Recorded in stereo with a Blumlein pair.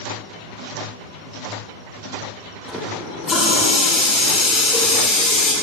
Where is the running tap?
15° left, 3.5 m.